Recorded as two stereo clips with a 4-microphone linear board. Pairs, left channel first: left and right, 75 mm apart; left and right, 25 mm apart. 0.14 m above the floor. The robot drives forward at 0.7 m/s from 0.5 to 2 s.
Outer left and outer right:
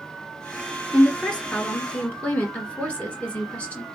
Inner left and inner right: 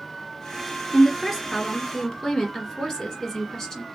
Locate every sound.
0.9 s a woman speaking: 15° left (ahead or behind), 2 m; by 3.9 s 20° left (ahead or behind), 1.8 m